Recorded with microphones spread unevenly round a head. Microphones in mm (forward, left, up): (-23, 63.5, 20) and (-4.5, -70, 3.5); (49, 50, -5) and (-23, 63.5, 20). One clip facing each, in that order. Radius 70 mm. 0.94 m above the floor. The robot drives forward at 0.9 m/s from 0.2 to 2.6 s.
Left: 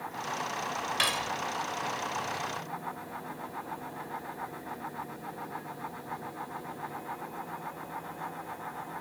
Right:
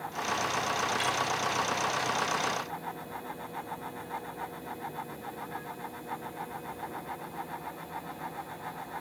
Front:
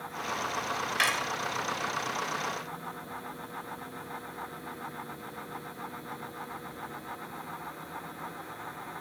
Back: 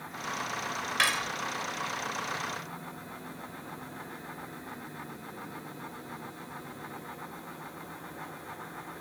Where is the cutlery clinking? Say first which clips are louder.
Right 2 dB, back 1 dB; 85° left; by 1.3 s 95° left.